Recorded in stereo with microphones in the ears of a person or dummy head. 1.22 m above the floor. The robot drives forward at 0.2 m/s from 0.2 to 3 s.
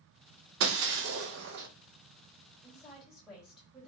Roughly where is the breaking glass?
Right.